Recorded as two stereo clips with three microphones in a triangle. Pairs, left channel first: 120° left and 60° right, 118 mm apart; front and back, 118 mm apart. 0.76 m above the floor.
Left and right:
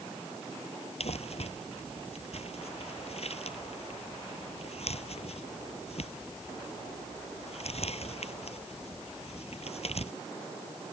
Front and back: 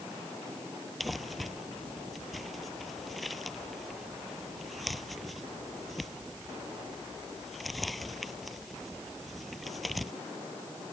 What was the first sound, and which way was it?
Crumpling, 90° left.